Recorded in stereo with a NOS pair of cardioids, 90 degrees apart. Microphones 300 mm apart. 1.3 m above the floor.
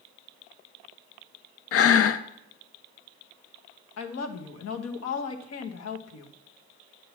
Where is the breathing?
50° left, 0.6 m.